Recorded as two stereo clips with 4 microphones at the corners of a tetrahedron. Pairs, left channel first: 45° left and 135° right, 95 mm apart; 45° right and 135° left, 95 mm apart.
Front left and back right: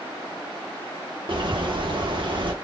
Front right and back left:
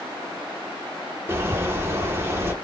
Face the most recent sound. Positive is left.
turn(degrees=-160)